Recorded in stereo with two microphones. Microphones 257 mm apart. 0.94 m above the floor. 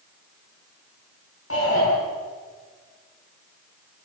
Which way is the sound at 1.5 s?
60° left (ahead or behind).